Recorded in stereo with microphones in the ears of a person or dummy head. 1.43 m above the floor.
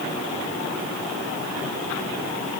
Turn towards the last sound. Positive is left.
No sound to turn to.